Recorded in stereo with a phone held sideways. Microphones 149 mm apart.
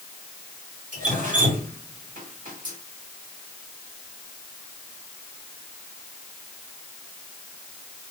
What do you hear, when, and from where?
0.9 s dripping: 55° right (ahead or behind), 2 m